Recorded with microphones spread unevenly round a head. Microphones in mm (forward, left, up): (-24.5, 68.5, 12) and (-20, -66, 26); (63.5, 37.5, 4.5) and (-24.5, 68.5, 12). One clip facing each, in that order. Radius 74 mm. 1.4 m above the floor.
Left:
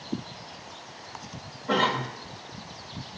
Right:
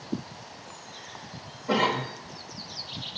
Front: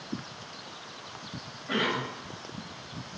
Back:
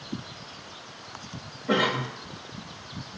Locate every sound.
1.7 s a cough: 165° right, 2 m